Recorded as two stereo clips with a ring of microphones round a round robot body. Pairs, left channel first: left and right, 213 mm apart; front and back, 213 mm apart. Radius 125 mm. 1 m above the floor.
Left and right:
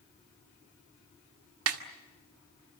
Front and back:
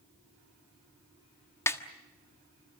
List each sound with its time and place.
1.7 s a snare drum: 80° right, 1.4 m